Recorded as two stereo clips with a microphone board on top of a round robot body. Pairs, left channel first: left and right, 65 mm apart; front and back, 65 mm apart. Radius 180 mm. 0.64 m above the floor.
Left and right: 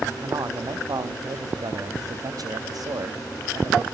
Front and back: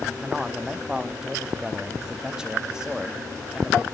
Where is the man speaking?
100° right, 1.6 m.